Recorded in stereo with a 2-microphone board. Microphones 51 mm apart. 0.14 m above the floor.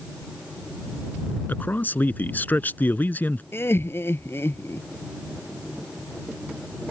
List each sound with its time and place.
1.5 s a man speaking: 40° left (ahead or behind)
3.5 s laughter: 50° left (ahead or behind)